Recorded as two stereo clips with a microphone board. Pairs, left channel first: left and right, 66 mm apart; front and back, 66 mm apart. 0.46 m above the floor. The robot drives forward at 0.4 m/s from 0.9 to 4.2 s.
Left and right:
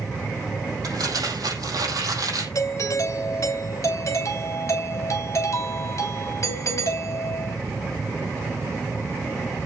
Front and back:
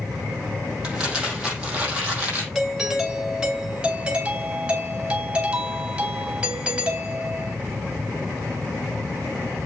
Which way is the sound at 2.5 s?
95° left.